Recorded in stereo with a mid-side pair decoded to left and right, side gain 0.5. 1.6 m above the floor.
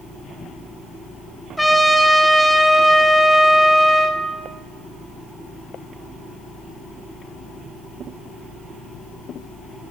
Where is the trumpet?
Straight ahead, 0.9 m.